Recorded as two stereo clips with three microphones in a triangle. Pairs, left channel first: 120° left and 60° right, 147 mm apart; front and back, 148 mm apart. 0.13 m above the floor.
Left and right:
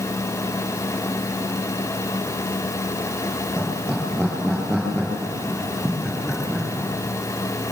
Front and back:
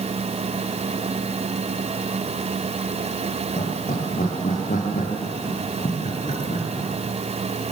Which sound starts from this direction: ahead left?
Laughter, at 3.6 s.